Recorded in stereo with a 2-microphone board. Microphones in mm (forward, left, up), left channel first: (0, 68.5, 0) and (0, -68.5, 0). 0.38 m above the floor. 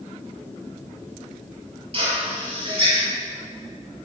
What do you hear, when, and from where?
1.9 s a drill: 45° right (ahead or behind), 6.5 m